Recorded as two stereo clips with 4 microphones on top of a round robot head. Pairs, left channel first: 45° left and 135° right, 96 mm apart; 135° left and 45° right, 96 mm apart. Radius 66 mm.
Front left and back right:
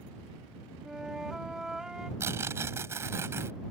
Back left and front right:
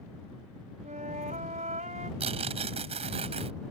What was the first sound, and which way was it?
A flute, 50° right.